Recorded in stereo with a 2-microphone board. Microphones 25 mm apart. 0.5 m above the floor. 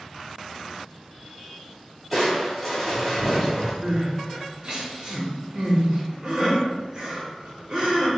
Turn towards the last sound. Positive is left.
turn(degrees=-30)  # may be behind; listen again after turning